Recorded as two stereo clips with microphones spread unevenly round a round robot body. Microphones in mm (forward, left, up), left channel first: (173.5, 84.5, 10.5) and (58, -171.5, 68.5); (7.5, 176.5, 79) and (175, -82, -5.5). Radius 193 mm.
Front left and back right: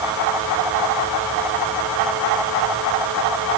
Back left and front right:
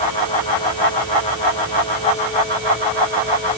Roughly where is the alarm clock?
No alarm clock in this recording.